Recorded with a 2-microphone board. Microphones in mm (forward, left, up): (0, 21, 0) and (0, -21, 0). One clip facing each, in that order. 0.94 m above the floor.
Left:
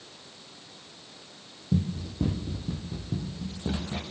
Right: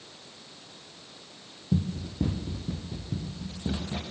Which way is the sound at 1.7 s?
15° right (ahead or behind).